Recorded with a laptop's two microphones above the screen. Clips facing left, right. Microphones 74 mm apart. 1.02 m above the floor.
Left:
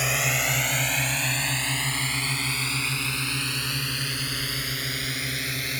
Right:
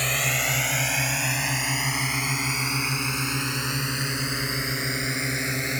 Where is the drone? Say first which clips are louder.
Even; 5° left (ahead or behind); by 5.8 s 25° right (ahead or behind).